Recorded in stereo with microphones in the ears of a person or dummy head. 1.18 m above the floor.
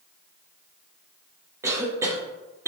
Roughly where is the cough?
Centre.